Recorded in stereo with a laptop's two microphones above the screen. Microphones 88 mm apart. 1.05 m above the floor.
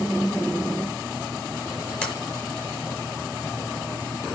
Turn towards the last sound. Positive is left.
turn(degrees=15)  # may be behind; listen again after turning